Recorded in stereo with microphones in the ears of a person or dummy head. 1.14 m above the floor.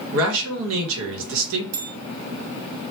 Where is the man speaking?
65° right (ahead or behind), 1.0 m.